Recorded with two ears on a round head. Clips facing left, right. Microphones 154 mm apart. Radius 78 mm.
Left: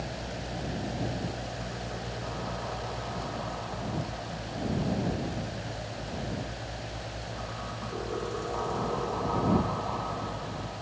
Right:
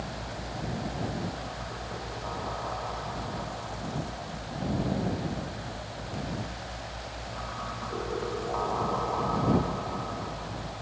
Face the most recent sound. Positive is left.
No sound to turn to.